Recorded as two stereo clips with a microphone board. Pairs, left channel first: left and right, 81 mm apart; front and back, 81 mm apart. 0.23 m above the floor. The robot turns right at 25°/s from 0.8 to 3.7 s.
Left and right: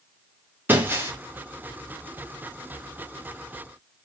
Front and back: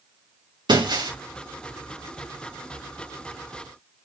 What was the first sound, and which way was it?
Breaking glass, 155° right.